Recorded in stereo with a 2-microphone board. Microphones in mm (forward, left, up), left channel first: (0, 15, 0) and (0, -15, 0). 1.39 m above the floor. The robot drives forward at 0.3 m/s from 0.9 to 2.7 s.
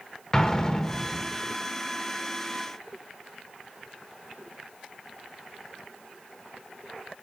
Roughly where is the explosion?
Centre.